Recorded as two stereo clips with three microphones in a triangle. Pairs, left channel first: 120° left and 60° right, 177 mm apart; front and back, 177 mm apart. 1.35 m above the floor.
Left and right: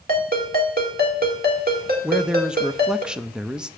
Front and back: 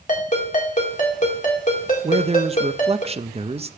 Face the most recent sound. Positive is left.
turn(degrees=-145)